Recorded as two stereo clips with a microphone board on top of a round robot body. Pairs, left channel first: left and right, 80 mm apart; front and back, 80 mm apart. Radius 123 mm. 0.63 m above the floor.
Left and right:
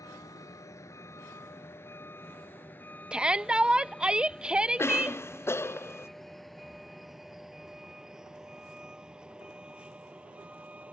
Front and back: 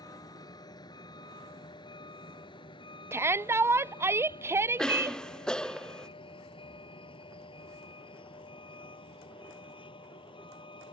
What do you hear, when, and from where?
0.0 s a vehicle: 40° left; by 10.9 s 15° right
3.1 s a shout: 160° right
4.8 s a cough: 75° left